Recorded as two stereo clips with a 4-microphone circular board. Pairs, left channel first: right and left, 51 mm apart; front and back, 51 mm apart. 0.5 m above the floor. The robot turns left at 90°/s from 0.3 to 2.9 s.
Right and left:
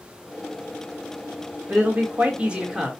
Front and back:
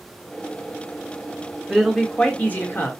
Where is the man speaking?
100° left, 1.4 m; by 2.9 s 10° right, 1.4 m.